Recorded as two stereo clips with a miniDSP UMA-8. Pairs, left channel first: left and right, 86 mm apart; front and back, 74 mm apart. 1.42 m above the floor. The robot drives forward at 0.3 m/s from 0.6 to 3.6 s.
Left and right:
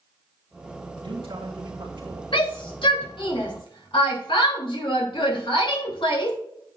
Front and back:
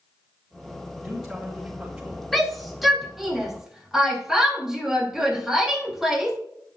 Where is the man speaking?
110° right, 2.5 m; by 2.2 s 120° right, 2.5 m.